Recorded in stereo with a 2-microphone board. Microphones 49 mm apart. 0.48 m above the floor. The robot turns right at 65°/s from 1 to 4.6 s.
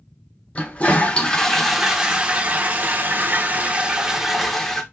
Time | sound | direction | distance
0.6 | a toilet flushing | 135° left | 0.8 m